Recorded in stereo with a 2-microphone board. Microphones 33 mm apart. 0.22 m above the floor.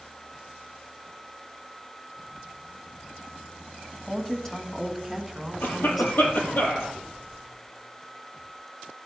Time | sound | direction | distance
4.1 | a woman speaking | 10° left (ahead or behind) | 1.7 m
5.6 | a cough | 75° left (ahead or behind) | 5 m